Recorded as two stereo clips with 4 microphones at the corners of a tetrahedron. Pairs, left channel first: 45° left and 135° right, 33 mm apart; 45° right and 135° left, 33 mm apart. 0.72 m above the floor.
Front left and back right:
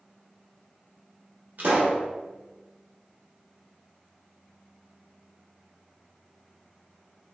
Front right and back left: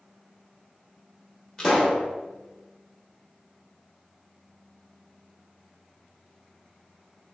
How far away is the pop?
About 0.9 m.